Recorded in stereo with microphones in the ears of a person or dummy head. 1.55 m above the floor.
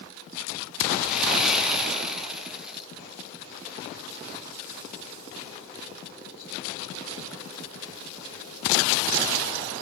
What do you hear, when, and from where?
1.0 s sawing: centre (ahead or behind), 1.2 m